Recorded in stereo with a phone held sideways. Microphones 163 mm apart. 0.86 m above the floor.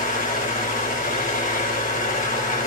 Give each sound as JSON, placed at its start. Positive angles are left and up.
{"t": 0.0, "sound": "a fan", "side_deg": 50, "distance_m": 1.2}